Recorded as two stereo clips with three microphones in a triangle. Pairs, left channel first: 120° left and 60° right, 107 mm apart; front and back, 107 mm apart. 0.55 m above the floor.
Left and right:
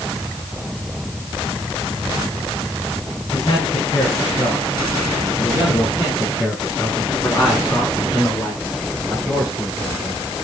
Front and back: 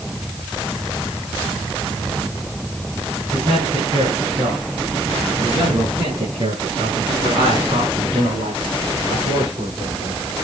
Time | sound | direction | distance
3.3 | a man speaking | 155° left | 6 m